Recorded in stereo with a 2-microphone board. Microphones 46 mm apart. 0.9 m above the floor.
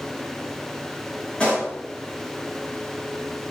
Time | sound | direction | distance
1.4 | a pop | 20° left (ahead or behind) | 4 m